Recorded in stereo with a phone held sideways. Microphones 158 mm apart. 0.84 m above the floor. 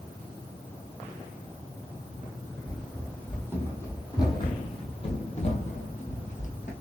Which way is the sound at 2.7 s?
5° left (ahead or behind).